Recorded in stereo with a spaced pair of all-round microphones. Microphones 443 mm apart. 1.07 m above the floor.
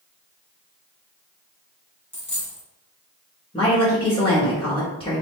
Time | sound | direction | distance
2.1 | a dropped coin | 25° left (ahead or behind) | 1.0 m
3.5 | a woman speaking | 10° left (ahead or behind) | 1.1 m